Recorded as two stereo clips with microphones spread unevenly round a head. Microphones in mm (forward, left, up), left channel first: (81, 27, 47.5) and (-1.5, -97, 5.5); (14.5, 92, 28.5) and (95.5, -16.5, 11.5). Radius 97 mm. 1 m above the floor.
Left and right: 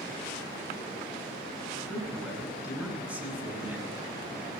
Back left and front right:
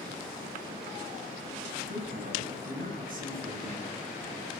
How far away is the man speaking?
About 8.5 m.